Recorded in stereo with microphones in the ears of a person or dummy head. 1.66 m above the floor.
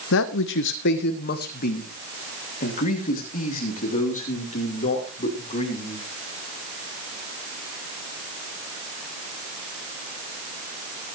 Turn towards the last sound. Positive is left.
turn(degrees=35)  # may be behind; listen again after turning